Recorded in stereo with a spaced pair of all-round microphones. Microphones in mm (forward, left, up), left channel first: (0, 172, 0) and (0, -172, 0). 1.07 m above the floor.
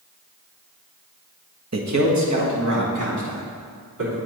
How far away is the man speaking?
About 0.8 m.